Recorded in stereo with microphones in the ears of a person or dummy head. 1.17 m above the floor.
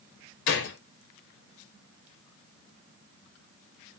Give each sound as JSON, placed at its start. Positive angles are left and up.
{"t": 0.5, "sound": "a gunshot", "side_deg": 60, "distance_m": 0.9}